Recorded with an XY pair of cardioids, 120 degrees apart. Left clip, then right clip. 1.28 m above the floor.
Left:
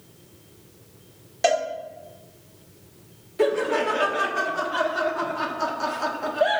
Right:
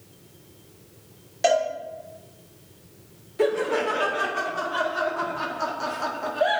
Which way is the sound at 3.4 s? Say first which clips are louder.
Left 1 dB; 10° left.